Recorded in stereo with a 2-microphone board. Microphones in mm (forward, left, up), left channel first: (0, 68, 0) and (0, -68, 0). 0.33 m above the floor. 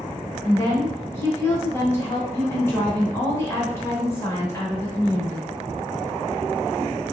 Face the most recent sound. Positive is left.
turn(degrees=20)  # may be behind; listen again after turning